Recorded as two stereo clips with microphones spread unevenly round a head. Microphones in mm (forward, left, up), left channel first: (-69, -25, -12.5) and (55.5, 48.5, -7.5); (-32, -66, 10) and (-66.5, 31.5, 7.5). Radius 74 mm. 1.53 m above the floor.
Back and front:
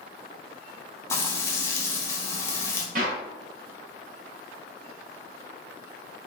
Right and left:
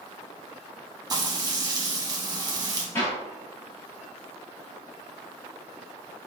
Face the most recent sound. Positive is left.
turn(degrees=0)